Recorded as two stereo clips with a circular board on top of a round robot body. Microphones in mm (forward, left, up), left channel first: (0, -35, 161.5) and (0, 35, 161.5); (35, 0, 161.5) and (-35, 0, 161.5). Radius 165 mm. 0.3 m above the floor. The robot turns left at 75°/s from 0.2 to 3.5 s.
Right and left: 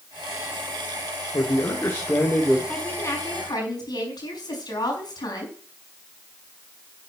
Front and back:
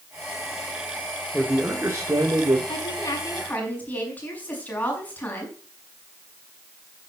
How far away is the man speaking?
About 2 m.